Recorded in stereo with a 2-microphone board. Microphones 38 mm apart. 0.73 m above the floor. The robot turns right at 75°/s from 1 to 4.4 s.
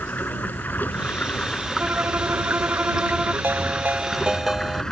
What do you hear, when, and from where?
0.0 s running water: 120° left; by 4.9 s 15° left
1.8 s a violin: 130° right; by 3.3 s 15° right
3.4 s a ringtone: 90° right; by 4.8 s 15° right